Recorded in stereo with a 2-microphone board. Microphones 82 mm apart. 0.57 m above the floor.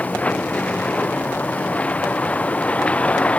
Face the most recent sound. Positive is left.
turn(degrees=15)  # may be behind; listen again after turning